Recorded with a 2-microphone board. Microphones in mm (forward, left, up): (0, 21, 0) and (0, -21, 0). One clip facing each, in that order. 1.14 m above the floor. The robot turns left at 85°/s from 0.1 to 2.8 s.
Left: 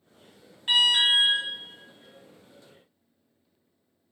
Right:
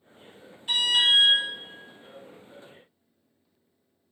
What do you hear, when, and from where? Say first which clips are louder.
0.7 s an alarm: left 1 dB; 90° left, 1.7 m; by 1.4 s 30° left, 1.7 m